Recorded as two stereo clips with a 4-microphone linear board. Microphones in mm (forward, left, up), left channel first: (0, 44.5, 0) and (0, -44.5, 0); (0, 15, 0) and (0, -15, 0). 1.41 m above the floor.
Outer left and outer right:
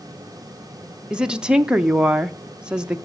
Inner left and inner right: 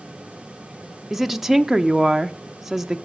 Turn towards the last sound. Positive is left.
turn(degrees=-10)  # may be behind; listen again after turning